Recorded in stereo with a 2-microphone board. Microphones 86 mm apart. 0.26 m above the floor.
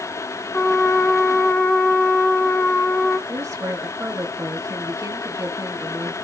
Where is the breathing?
I don't hear breathing.